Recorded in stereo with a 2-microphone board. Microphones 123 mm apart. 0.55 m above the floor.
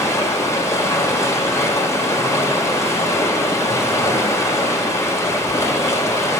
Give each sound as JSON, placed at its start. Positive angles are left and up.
{"t": 0.0, "sound": "running water", "side_deg": 25, "distance_m": 1.6}